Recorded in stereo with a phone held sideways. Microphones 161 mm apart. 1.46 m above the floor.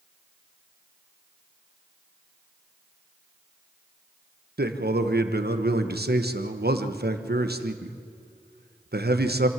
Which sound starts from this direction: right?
A man speaking, at 4.6 s.